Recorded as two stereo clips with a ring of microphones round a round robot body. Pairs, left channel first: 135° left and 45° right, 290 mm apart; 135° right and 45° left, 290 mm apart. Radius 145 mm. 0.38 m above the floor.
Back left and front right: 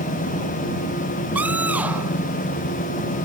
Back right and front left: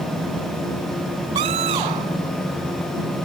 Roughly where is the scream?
Ahead left.